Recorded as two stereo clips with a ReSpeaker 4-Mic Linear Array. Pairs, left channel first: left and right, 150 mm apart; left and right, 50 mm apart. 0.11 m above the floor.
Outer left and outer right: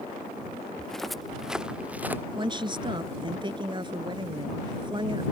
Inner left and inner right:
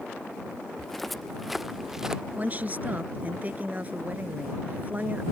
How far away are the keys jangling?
No keys jangling in this recording.